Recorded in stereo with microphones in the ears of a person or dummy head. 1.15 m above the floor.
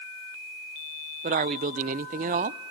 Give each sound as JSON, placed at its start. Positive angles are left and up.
{"t": 1.2, "sound": "a man speaking", "side_deg": -40, "distance_m": 0.8}